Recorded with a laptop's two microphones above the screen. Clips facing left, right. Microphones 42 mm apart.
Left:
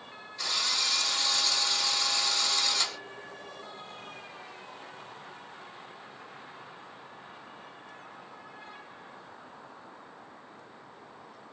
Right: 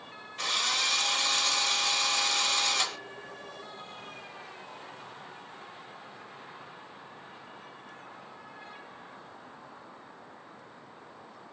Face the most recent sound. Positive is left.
turn(degrees=-55)  # may be behind; listen again after turning